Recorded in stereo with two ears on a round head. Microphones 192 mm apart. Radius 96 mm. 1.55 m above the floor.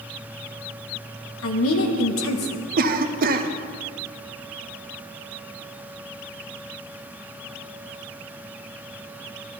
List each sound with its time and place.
1.4 s a woman speaking: 70° left (ahead or behind), 1.4 m
2.8 s a cough: 45° right (ahead or behind), 0.8 m